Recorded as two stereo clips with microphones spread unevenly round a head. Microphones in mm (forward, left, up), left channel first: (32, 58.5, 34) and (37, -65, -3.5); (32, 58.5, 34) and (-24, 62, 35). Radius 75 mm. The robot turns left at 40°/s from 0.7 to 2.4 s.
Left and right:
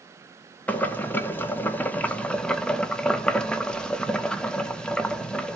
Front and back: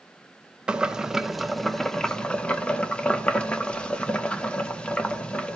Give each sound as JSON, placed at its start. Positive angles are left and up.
{"t": 0.7, "sound": "boiling", "azimuth_deg": 120, "distance_m": 0.6}